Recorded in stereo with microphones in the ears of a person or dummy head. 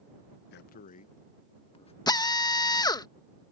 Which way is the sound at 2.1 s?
15° left (ahead or behind).